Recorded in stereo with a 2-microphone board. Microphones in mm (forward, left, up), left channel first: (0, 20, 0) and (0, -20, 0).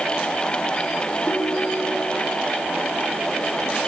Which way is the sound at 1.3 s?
60° left (ahead or behind).